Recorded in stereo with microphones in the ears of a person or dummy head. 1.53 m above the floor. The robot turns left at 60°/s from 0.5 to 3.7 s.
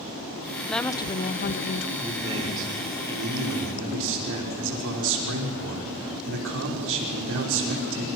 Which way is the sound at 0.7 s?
175° left.